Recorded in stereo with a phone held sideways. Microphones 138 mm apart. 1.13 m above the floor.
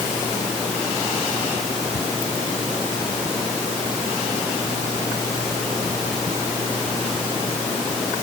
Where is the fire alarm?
No fire alarm in this recording.